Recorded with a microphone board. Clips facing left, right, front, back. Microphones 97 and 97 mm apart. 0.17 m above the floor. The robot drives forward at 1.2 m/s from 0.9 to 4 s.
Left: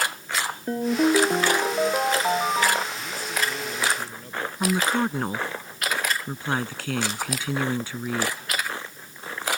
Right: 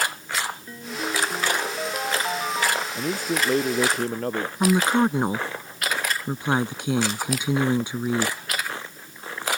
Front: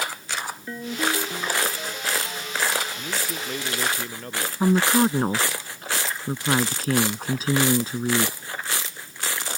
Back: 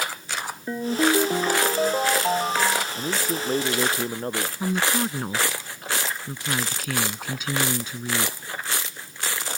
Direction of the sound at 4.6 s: 30° right.